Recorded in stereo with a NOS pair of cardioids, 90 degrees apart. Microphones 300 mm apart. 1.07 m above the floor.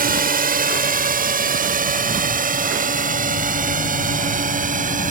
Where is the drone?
30° right; by 5.1 s 25° right.